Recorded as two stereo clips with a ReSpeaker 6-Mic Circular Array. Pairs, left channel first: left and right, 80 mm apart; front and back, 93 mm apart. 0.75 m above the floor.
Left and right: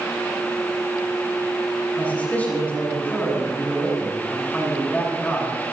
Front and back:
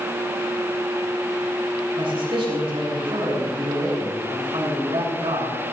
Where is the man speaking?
160° left, 7 m.